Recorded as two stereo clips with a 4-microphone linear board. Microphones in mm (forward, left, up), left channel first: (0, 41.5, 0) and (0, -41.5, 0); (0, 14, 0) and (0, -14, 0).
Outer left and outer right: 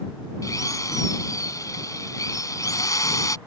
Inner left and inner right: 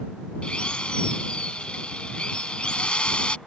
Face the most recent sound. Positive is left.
turn(degrees=40)  # may be behind; listen again after turning